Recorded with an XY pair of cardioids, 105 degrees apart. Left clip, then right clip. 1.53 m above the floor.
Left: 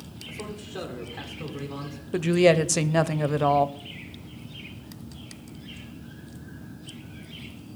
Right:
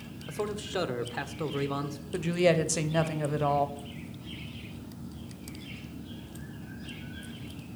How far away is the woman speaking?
About 0.7 m.